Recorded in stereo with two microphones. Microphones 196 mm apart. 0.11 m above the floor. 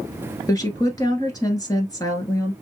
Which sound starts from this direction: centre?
A woman speaking, at 0.5 s.